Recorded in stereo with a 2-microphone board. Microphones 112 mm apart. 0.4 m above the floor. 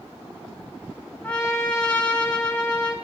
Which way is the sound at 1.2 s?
10° left (ahead or behind).